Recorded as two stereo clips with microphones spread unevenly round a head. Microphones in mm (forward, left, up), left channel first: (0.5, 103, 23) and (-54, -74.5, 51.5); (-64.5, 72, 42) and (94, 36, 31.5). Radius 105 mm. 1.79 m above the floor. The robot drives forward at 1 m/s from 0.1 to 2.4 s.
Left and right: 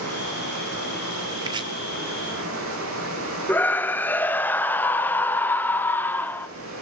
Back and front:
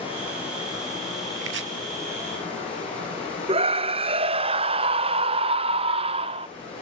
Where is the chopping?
35° right, 1.7 m; by 1.7 s 40° right, 1.5 m.